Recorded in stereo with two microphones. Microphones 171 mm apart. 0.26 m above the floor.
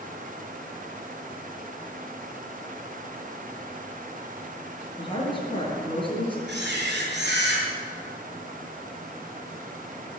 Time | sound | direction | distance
5.0 | a woman speaking | 30° left (ahead or behind) | 4.5 m
6.5 | a camera shutter | 75° right (ahead or behind) | 5 m